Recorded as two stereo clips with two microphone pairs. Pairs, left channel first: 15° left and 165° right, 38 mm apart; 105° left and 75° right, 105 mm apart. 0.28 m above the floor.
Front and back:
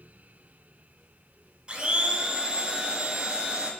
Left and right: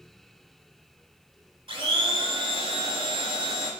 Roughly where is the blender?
Right.